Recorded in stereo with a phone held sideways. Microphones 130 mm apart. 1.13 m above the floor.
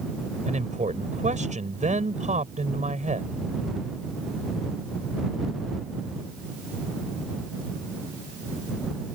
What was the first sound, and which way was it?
A man speaking, 65° right (ahead or behind).